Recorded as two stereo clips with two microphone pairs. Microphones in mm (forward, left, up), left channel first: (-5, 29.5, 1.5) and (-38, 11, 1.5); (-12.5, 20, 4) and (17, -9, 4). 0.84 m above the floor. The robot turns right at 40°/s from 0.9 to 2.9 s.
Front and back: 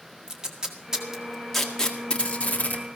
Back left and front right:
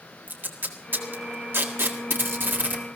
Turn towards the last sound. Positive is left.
turn(degrees=0)